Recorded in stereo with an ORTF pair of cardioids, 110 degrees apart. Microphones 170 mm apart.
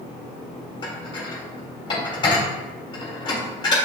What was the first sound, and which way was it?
Dishes clattering, 30° left.